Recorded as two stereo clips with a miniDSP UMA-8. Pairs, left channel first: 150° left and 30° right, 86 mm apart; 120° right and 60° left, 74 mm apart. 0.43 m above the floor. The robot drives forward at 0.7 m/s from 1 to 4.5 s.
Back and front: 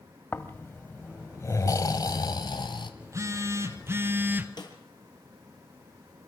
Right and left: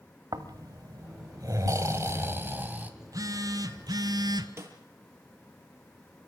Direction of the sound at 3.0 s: 20° left.